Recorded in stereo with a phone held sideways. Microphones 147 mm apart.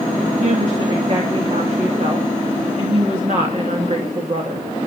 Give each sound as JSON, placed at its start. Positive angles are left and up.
{"t": 0.4, "sound": "a woman speaking", "side_deg": -50, "distance_m": 2.5}